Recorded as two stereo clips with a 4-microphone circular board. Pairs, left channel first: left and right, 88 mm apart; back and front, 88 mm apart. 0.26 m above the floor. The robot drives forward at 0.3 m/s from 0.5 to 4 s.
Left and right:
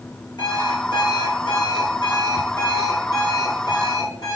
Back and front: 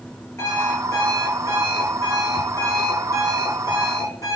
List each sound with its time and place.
0.4 s an alarm clock: 125° left, 4 m; by 4.4 s 135° left, 4.5 m